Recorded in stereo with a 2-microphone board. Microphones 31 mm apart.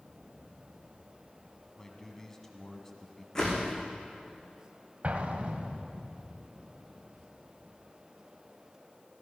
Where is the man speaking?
15° left (ahead or behind), 2.5 m.